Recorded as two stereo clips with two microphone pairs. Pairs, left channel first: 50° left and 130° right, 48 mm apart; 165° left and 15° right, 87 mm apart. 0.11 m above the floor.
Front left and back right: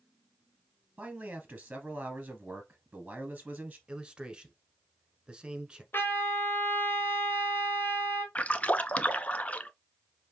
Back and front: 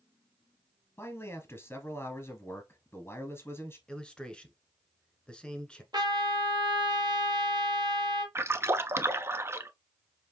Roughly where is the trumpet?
Ahead.